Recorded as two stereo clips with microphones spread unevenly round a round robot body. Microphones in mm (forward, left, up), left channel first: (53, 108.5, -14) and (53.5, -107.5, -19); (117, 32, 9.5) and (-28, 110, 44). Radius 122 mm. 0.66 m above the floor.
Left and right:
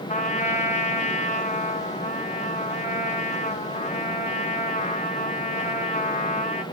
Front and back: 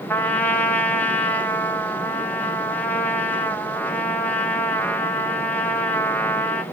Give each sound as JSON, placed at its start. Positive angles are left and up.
{"t": 0.1, "sound": "a trumpet", "azimuth_deg": 40, "distance_m": 1.2}